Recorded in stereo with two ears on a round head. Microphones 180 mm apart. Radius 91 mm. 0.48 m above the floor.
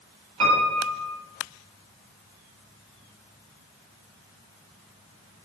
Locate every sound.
0.4 s a piano: 90° right, 7 m